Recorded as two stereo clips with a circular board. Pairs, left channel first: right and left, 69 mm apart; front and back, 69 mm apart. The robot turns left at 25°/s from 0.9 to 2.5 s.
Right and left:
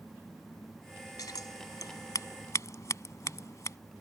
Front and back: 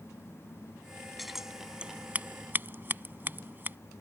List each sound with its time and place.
1.2 s scissors: 90° right; by 3.8 s 125° right